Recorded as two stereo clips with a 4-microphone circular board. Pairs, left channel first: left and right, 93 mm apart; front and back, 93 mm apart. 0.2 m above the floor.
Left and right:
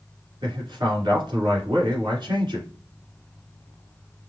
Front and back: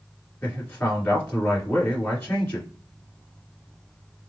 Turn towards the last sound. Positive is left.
turn(degrees=-65)